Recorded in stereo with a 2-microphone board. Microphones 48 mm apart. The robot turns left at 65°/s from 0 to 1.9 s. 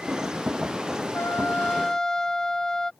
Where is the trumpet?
60° left; by 2.9 s 15° left.